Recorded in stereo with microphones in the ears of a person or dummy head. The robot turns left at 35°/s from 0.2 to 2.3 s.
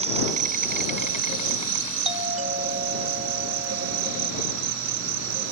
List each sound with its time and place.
0.0 s an insect: 40° right; by 5.5 s 115° right
2.0 s a doorbell: 35° right (ahead or behind); by 4.3 s 45° right (ahead or behind)